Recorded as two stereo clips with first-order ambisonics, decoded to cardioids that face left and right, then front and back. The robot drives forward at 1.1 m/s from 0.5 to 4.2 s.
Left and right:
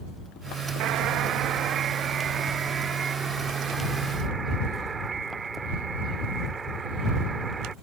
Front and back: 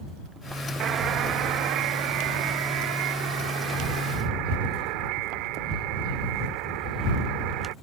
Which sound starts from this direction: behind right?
A buzzer, at 0.8 s.